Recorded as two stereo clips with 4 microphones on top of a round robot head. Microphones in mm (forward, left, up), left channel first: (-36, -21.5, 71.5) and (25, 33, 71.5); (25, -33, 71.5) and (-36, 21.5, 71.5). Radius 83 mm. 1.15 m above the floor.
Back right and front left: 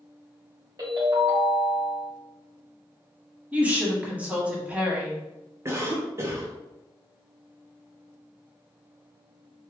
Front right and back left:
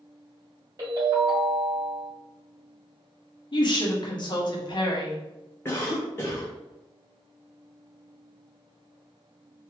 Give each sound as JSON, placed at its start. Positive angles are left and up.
{"t": 0.8, "sound": "a ringtone", "azimuth_deg": 85, "distance_m": 2.0}
{"t": 3.5, "sound": "a woman speaking", "azimuth_deg": -30, "distance_m": 1.0}
{"t": 5.7, "sound": "a cough", "azimuth_deg": 0, "distance_m": 0.6}